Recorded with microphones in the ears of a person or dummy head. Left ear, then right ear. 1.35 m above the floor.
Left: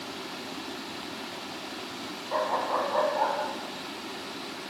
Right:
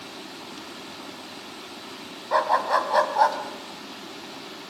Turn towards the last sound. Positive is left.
turn(degrees=-70)  # may be behind; listen again after turning